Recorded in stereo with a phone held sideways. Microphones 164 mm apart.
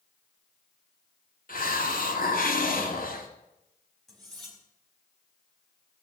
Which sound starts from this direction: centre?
Cutlery clinking, at 4.1 s.